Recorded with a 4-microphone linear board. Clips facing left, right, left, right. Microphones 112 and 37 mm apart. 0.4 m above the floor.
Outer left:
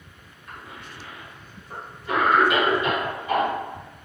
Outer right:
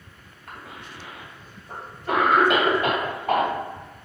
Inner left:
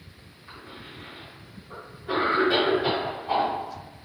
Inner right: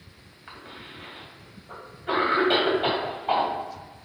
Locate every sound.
0.5 s a cough: 60° right (ahead or behind), 2.5 m